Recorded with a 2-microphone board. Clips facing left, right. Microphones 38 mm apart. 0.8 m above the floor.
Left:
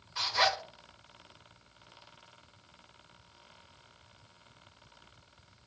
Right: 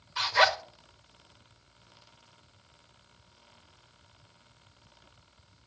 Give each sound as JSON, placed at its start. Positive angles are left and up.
{"t": 0.2, "sound": "a zipper", "side_deg": -45, "distance_m": 1.3}